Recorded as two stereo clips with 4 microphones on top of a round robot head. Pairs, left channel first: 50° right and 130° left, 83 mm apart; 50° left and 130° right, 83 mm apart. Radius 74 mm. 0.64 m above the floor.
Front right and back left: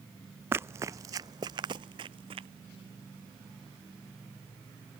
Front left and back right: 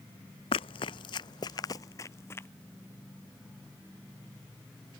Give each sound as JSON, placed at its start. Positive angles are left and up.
{"t": 0.5, "sound": "running footsteps", "azimuth_deg": 65}